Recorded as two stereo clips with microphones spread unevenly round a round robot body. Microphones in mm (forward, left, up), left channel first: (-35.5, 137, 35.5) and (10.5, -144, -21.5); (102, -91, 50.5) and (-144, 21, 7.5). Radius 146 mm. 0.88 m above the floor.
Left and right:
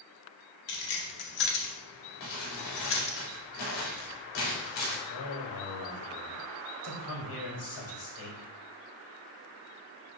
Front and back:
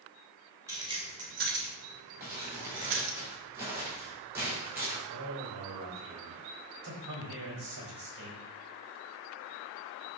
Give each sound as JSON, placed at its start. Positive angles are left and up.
{"t": 0.7, "sound": "keys jangling", "azimuth_deg": 75, "distance_m": 2.5}
{"t": 2.2, "sound": "crumpling", "azimuth_deg": 75, "distance_m": 4.0}
{"t": 5.1, "sound": "a man speaking", "azimuth_deg": 110, "distance_m": 4.0}